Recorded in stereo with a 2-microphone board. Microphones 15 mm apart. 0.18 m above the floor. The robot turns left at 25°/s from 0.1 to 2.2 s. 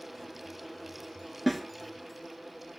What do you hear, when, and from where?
1.5 s a snare drum: centre (ahead or behind), 0.5 m; by 1.7 s 5° left (ahead or behind), 0.5 m